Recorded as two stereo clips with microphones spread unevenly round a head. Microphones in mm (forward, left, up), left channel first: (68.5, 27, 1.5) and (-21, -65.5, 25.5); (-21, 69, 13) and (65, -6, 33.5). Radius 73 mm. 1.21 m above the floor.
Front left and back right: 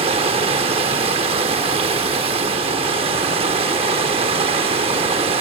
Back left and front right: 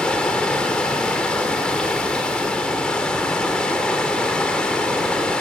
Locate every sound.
0.0 s running water: 130° right, 1.1 m